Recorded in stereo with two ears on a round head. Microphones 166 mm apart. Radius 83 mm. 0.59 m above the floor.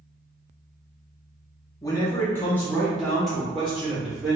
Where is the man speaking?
20° left (ahead or behind), 0.8 m; by 4.4 s 5° right (ahead or behind), 1.5 m.